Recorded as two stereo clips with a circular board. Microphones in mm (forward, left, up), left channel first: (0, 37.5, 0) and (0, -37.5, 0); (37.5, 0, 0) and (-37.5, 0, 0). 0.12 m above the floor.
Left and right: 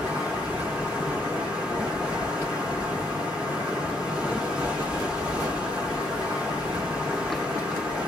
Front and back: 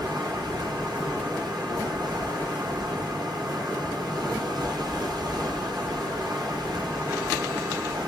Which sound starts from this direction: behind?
Running water, at 0.0 s.